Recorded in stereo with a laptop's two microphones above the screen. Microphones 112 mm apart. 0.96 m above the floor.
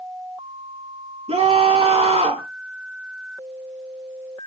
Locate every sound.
1.3 s a scream: 70° right (ahead or behind), 2 m